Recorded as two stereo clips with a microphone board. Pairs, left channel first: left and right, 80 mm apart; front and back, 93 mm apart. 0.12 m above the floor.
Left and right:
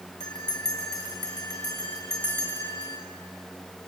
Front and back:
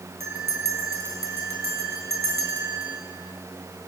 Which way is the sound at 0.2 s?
120° left.